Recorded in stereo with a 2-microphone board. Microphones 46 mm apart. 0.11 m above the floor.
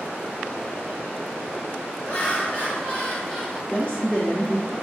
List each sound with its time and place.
2.0 s laughter: 30° left (ahead or behind), 1.7 m; by 3.6 s 20° left (ahead or behind), 1.7 m
3.7 s a woman speaking: 25° left (ahead or behind), 1.7 m